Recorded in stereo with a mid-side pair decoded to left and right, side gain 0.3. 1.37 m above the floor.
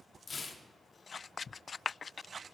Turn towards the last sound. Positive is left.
turn(degrees=50)